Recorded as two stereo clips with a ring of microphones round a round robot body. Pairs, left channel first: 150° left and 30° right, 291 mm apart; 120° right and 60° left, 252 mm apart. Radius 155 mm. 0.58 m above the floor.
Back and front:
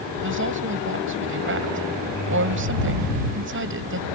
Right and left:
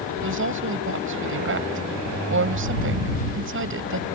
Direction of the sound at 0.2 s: 20° left.